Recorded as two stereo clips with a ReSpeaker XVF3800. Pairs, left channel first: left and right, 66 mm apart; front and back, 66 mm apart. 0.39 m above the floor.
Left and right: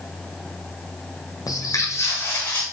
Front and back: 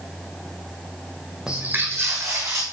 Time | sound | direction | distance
1.5 | footsteps | 105° left | 0.9 m